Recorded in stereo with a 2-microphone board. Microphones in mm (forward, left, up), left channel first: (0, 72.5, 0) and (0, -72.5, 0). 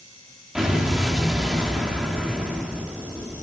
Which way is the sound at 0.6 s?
5° right (ahead or behind).